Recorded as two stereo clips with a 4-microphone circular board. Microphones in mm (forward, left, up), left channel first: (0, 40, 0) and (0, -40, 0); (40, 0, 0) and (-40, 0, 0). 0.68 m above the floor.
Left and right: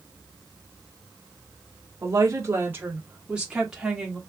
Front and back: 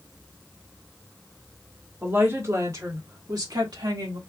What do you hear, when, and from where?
2.0 s a woman speaking: 125° right, 1.3 m; by 4.2 s straight behind, 1.6 m